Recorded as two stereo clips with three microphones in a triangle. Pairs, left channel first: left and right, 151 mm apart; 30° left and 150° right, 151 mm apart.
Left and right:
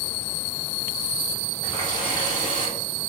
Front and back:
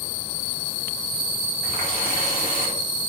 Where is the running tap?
30° left, 2 m.